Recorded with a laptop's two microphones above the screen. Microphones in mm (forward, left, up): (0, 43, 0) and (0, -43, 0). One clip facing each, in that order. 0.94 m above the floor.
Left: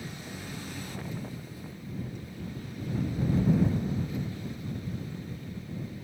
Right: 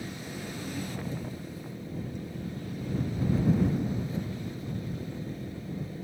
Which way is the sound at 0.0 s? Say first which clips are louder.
Right 3 dB; 35° right (ahead or behind).